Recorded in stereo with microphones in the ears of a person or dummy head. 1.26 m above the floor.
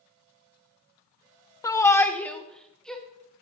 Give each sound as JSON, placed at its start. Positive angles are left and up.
{"t": 1.6, "sound": "a shout", "side_deg": 25, "distance_m": 0.6}